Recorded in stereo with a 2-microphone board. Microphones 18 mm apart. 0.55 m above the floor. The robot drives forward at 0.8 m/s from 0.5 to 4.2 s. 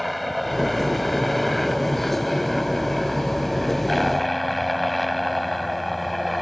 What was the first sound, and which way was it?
A helicopter, centre (ahead or behind).